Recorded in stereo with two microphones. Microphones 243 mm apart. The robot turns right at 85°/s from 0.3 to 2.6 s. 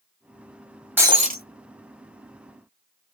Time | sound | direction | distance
1.0 | breaking glass | 170° right | 1.3 m